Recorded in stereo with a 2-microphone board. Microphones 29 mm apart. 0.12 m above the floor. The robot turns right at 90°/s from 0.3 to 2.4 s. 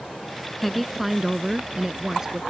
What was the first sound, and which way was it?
A woman speaking, 5° left (ahead or behind).